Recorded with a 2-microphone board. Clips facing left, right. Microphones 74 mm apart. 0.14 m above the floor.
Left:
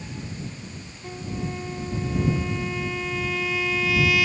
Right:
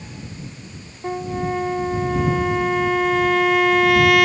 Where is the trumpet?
60° right (ahead or behind).